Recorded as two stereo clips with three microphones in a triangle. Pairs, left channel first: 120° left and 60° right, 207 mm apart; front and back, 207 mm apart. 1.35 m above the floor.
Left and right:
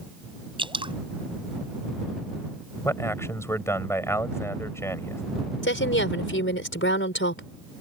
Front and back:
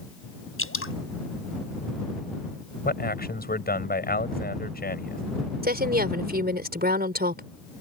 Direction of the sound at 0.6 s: 5° left.